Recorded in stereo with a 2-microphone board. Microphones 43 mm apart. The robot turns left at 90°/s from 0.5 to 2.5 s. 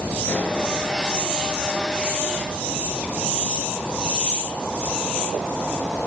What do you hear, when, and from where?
0.2 s a pop: 40° left (ahead or behind), 9.5 m; by 0.6 s 50° left (ahead or behind), 9.5 m